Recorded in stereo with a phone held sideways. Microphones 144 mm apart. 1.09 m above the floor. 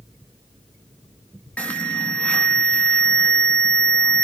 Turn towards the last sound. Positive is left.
turn(degrees=10)  # may be behind; listen again after turning